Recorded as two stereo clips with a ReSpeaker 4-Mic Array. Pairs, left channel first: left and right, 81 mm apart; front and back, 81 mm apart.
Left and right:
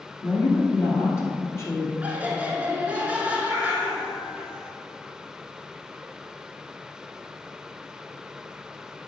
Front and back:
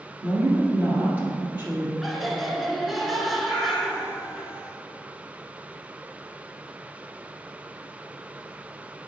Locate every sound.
0.2 s a woman speaking: 120° left, 1.8 m
2.0 s laughter: 90° right, 1.1 m
3.4 s a cat meowing: 110° left, 1.9 m